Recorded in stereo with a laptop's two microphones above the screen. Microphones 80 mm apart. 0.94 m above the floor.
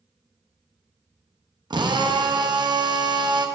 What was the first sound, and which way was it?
A drill, 60° right (ahead or behind).